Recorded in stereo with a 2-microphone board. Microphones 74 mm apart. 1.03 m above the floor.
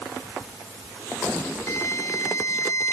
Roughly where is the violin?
Left.